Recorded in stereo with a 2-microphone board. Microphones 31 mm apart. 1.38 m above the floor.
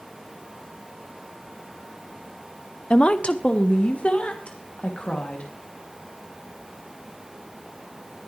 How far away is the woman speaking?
About 0.6 m.